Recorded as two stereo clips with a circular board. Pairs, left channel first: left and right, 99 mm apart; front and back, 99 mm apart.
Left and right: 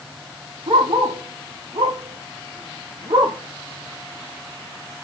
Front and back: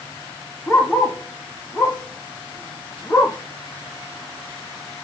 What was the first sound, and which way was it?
A dog barking, 75° right.